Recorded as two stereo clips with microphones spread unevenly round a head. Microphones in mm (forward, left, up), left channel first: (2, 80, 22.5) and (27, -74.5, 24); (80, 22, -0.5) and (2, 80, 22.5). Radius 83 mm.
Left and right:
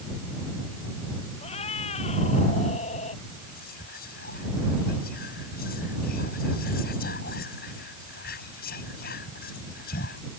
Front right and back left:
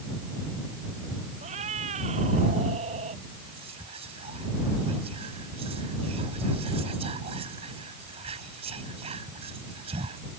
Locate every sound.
1.4 s a cat meowing: 155° left; by 3.2 s 150° left
3.4 s whispering: 135° left